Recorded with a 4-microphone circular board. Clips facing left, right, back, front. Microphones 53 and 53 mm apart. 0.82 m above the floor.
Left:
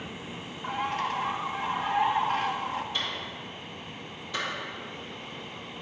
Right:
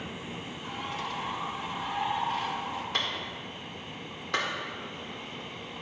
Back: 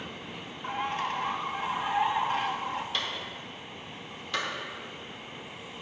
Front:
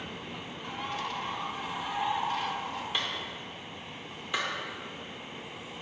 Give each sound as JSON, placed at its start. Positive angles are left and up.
{"t": 0.6, "sound": "a bird", "azimuth_deg": 125, "distance_m": 0.8}
{"t": 2.9, "sound": "a clap", "azimuth_deg": -70, "distance_m": 2.0}